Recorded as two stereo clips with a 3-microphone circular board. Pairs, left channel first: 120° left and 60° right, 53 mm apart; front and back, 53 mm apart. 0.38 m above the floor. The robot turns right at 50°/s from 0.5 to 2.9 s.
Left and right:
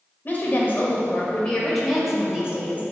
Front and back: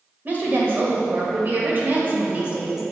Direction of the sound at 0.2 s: 145° left.